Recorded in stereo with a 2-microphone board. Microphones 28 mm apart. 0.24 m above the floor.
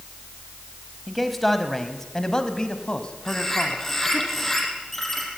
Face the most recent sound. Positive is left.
turn(degrees=5)  # may be behind; listen again after turning